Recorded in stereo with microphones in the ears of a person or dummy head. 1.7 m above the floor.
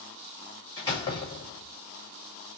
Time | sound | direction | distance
0.8 | a door slam | 20° left (ahead or behind) | 1.2 m